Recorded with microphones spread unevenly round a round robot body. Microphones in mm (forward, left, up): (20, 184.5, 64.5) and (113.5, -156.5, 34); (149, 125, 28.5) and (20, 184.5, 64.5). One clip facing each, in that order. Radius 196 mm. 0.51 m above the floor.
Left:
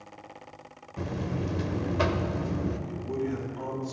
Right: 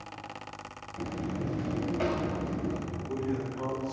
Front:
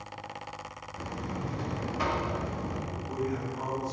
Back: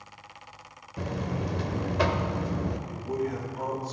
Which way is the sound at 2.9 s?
145° left.